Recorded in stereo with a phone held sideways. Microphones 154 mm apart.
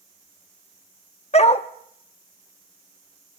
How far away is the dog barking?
About 0.6 m.